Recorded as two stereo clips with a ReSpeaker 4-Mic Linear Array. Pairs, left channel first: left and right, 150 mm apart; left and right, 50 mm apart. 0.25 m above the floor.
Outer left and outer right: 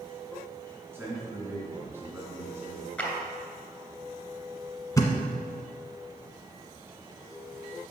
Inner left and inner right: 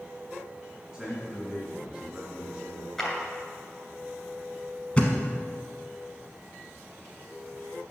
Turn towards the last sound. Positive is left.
turn(degrees=20)  # may be behind; listen again after turning